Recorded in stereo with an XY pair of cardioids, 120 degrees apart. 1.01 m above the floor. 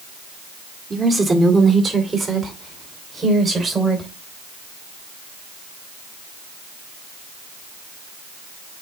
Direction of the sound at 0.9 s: 25° right.